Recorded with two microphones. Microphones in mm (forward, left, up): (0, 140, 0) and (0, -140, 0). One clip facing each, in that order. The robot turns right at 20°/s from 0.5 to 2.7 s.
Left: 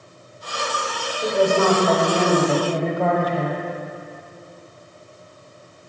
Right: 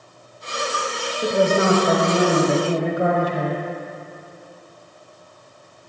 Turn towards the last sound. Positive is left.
turn(degrees=-10)  # may be behind; listen again after turning